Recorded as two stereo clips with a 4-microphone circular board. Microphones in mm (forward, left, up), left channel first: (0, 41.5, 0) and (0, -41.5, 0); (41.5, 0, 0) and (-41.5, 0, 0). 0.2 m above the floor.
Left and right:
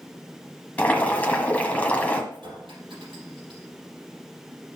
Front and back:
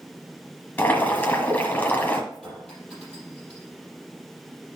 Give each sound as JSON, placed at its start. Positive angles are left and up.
{"t": 0.8, "sound": "boiling", "azimuth_deg": 40, "distance_m": 1.5}
{"t": 2.3, "sound": "a clink", "azimuth_deg": -80, "distance_m": 4.5}